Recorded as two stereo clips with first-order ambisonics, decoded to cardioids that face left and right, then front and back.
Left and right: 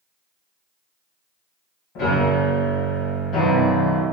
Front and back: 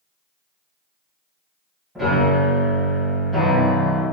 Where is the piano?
100° left, 1.4 m.